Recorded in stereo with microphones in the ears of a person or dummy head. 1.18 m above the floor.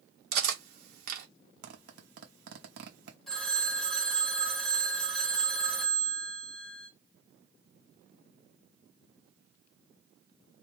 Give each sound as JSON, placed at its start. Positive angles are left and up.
{"t": 0.3, "sound": "cutlery clinking", "side_deg": -60, "distance_m": 1.0}
{"t": 1.6, "sound": "a zipper", "side_deg": -55, "distance_m": 1.0}
{"t": 3.3, "sound": "a phone ringing", "side_deg": 0, "distance_m": 1.5}